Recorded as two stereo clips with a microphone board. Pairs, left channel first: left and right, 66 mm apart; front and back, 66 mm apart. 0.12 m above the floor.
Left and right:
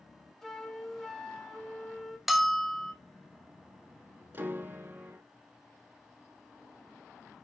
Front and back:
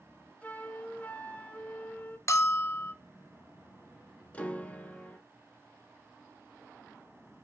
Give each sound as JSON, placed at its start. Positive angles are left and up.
{"t": 0.4, "sound": "a flute", "azimuth_deg": 15, "distance_m": 0.7}
{"t": 2.3, "sound": "a bell", "azimuth_deg": -5, "distance_m": 0.5}
{"t": 4.3, "sound": "a piano", "azimuth_deg": -55, "distance_m": 0.7}